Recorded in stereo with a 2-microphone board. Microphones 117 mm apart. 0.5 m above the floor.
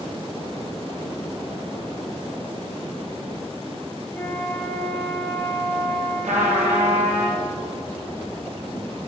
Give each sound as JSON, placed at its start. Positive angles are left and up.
{"t": 4.1, "sound": "a flute", "side_deg": 10, "distance_m": 4.0}
{"t": 6.2, "sound": "a trumpet", "side_deg": -85, "distance_m": 3.0}